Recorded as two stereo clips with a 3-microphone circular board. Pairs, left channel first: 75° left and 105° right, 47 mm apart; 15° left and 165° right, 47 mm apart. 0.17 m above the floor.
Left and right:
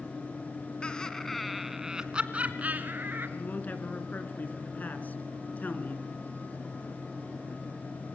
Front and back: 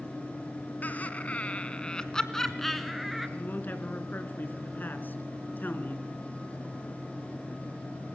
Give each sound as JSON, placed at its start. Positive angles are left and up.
{"t": 0.8, "sound": "laughter", "azimuth_deg": 20, "distance_m": 1.8}
{"t": 3.4, "sound": "a man speaking", "azimuth_deg": 40, "distance_m": 2.0}